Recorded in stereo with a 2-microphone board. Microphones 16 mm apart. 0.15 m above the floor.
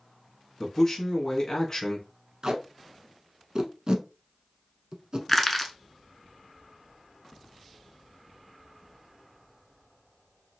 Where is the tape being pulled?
45° right (ahead or behind), 0.7 m.